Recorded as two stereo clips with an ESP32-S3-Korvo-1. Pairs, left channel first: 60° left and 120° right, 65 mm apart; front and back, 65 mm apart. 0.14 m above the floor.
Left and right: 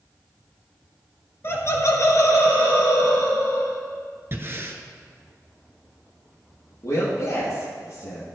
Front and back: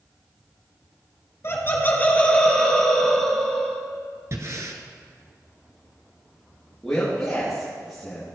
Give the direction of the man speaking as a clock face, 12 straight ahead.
9 o'clock.